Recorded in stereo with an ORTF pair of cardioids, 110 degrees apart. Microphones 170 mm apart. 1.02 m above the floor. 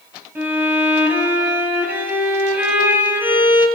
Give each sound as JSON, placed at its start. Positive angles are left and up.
{"t": 0.3, "sound": "a violin", "azimuth_deg": -10, "distance_m": 8.0}